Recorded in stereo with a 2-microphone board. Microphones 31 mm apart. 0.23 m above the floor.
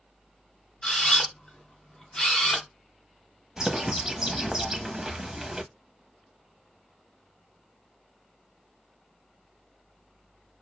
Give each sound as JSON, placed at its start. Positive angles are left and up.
{"t": 0.8, "sound": "a camera shutter", "side_deg": 20, "distance_m": 1.3}
{"t": 3.6, "sound": "a bird", "side_deg": -25, "distance_m": 0.5}